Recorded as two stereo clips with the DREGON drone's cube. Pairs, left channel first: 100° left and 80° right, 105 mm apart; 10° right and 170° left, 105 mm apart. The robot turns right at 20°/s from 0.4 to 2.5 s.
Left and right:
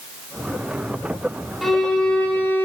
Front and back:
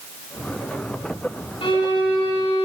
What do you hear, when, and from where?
1.6 s a violin: 10° left, 1.1 m; by 2.7 s 30° left, 1.1 m